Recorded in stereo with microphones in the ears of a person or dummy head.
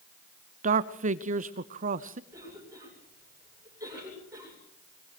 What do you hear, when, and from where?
0.6 s a man speaking: 50° right (ahead or behind), 0.7 m
2.3 s a cough: 25° right (ahead or behind), 7.5 m